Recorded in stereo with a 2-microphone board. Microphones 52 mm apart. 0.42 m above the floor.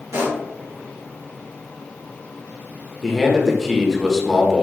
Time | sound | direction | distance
0.1 | a pop | 70° right (ahead or behind) | 2 m
3.0 | a man speaking | centre (ahead or behind) | 0.9 m